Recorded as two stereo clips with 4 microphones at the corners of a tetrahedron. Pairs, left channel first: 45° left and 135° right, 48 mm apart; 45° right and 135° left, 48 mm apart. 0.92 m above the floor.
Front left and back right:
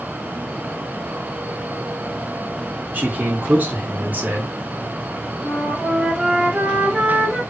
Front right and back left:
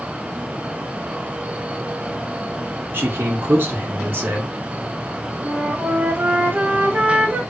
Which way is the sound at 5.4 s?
165° left.